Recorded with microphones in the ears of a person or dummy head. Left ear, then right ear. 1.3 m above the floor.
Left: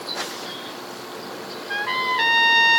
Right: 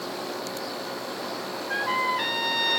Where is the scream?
I don't hear a scream.